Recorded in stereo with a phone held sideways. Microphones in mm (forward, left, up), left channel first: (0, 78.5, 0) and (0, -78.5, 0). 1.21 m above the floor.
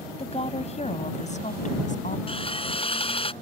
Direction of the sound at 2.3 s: 35° left (ahead or behind).